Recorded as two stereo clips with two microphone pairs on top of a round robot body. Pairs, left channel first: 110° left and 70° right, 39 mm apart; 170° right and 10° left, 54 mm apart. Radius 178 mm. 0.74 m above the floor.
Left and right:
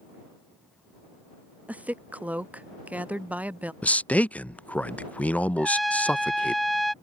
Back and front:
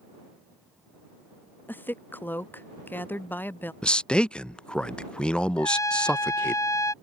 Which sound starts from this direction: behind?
A trumpet, at 5.6 s.